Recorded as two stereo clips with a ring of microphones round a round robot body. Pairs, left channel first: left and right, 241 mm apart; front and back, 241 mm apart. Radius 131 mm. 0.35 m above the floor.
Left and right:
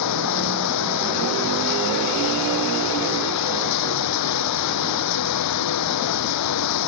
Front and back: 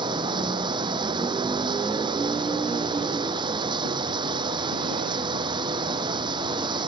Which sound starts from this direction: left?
Running water, at 0.0 s.